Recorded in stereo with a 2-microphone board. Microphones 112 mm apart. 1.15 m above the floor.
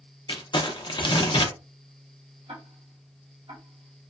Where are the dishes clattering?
I don't hear dishes clattering.